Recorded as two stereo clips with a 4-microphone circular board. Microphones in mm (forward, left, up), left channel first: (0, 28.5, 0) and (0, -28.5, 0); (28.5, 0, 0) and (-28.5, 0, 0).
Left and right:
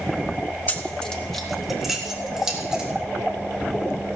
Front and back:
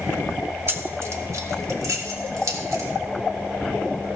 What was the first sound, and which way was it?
Keys jangling, 145° left.